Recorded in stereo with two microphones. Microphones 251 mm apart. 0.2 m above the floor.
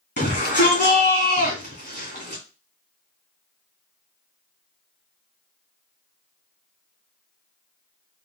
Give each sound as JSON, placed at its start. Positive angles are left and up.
{"t": 0.2, "sound": "a shout", "side_deg": 45, "distance_m": 2.5}